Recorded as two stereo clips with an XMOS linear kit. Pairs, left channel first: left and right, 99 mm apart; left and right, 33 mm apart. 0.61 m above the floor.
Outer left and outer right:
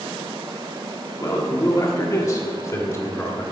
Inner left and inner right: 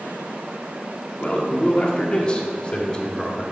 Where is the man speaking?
40° left (ahead or behind), 1.5 m; by 3.4 s 25° left (ahead or behind), 2 m.